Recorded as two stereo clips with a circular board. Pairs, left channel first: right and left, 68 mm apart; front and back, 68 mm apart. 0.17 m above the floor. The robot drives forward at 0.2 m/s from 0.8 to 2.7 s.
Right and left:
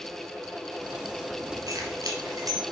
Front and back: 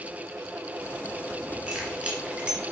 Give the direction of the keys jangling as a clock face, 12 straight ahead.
8 o'clock.